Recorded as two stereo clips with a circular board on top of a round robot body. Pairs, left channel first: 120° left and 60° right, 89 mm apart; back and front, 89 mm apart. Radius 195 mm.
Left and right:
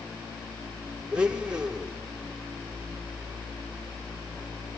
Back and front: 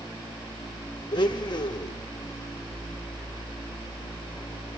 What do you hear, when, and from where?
1.1 s a blender: 140° right, 0.6 m